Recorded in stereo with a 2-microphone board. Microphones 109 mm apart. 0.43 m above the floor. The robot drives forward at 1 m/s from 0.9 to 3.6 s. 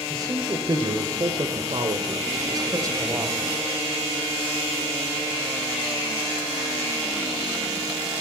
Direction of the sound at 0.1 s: 35° right (ahead or behind).